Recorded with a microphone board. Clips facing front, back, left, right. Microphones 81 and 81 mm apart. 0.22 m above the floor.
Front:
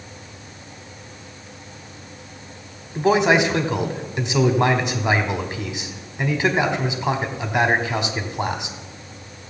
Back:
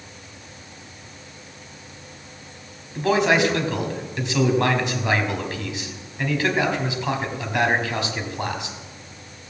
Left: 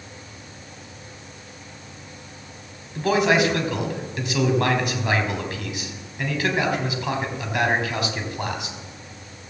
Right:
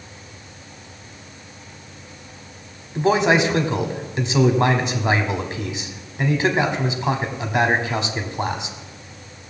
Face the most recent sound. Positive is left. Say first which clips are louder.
# front 2 dB, right 2 dB
turn(degrees=-50)